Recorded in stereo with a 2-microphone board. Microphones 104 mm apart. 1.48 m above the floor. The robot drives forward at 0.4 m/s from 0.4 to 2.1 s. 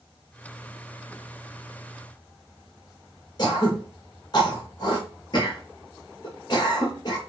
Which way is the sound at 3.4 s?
40° left (ahead or behind).